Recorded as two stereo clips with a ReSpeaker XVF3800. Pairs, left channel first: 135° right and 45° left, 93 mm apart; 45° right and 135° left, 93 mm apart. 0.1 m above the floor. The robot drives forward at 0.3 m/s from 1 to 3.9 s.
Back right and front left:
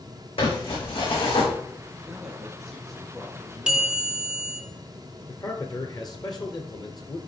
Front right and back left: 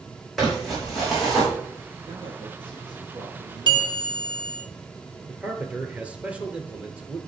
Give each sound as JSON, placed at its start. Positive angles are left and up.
{"t": 0.4, "sound": "crumpling", "azimuth_deg": -135, "distance_m": 5.5}
{"t": 2.0, "sound": "a man speaking", "azimuth_deg": 130, "distance_m": 2.5}
{"t": 3.7, "sound": "a bell", "azimuth_deg": 125, "distance_m": 1.5}
{"t": 5.3, "sound": "a man speaking", "azimuth_deg": -155, "distance_m": 1.6}